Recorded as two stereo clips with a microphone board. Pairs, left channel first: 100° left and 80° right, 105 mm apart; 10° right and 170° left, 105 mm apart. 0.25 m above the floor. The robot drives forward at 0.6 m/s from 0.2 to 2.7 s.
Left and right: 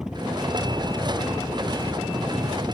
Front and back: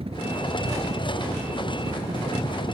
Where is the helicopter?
165° right.